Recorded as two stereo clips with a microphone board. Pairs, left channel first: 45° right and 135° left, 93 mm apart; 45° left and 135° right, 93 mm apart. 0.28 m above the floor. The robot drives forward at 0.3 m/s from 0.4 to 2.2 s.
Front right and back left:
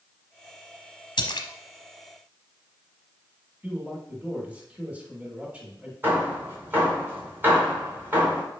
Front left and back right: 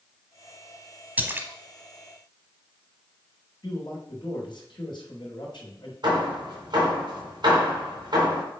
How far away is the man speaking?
About 2.5 m.